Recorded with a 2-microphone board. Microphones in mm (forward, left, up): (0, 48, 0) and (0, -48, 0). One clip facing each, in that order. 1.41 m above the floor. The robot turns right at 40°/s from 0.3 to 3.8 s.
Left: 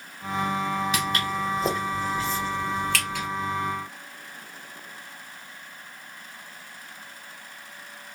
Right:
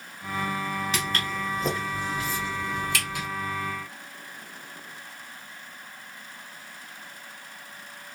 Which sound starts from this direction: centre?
Footsteps, at 0.9 s.